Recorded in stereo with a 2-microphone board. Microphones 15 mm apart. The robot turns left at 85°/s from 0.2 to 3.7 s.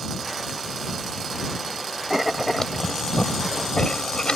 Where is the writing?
30° right (ahead or behind); by 4.3 s 75° left (ahead or behind).